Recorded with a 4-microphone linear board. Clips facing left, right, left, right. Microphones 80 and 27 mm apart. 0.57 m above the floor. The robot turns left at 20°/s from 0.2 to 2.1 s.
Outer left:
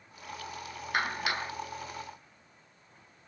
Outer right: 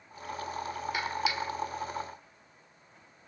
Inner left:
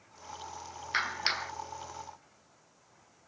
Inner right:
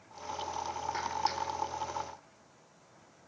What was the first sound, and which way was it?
A clap, 50° left (ahead or behind).